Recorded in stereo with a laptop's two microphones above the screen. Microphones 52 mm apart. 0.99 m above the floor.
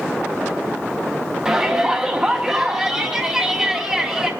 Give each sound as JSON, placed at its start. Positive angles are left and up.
{"t": 1.4, "sound": "a shout", "side_deg": -20, "distance_m": 0.9}